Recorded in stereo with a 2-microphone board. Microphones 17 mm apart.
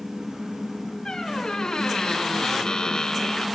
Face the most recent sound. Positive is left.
turn(degrees=50)  # may be behind; listen again after turning